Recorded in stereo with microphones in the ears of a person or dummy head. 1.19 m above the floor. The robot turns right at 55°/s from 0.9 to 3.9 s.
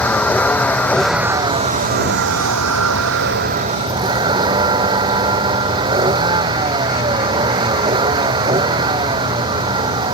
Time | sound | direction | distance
0.0 | a vehicle | 170° left | ?